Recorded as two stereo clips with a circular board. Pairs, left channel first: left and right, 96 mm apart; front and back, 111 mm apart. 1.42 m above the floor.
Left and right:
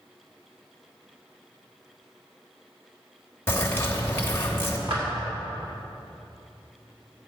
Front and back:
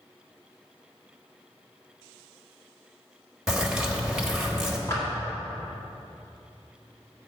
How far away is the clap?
About 2.5 m.